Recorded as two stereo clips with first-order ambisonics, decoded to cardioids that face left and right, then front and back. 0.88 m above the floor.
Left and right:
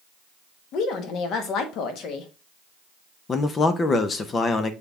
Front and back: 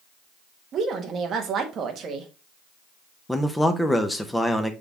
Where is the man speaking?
75° left, 0.6 m.